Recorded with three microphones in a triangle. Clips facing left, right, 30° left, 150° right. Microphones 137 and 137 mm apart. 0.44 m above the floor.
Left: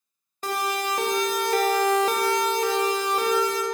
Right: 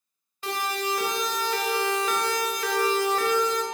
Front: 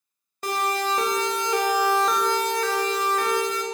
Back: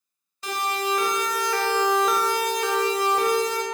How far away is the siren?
About 2.5 m.